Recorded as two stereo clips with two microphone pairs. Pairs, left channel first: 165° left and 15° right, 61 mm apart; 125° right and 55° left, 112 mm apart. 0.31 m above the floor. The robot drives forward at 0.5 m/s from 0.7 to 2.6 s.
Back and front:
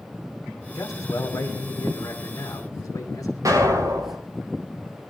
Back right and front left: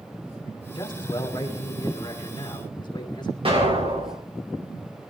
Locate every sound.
0.8 s a man speaking: straight behind, 1.7 m
3.5 s an explosion: 20° left, 7 m